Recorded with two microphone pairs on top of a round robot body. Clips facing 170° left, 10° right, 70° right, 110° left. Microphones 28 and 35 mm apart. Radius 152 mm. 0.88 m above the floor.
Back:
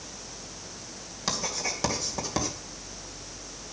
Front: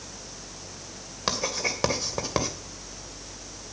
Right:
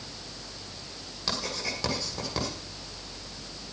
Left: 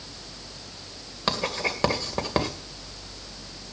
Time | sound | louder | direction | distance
1.3 | writing | front 3 dB, left 6 dB | 60° left | 2 m